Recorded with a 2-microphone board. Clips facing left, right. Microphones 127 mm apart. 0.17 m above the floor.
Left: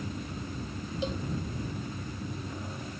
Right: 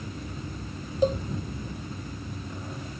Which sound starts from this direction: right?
A cowbell, at 1.0 s.